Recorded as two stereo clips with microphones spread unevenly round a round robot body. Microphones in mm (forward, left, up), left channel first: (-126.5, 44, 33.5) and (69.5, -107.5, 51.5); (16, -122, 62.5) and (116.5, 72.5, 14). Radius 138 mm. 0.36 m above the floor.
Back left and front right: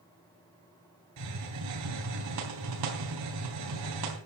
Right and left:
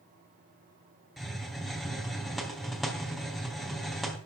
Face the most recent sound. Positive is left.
turn(degrees=-25)